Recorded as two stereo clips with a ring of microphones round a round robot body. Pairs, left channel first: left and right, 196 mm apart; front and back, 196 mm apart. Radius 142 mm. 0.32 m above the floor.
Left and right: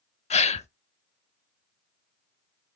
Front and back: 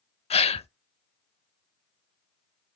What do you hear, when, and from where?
0.3 s a gasp: 45° left, 0.7 m